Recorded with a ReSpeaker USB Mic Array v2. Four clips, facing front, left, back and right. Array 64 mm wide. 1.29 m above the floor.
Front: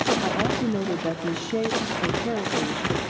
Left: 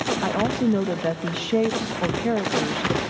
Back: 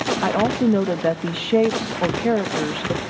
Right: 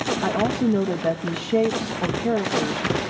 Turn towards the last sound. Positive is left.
turn(degrees=170)